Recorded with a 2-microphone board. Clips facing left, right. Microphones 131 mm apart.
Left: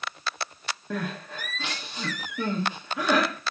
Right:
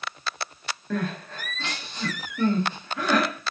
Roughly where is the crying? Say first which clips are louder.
Right 4 dB; centre.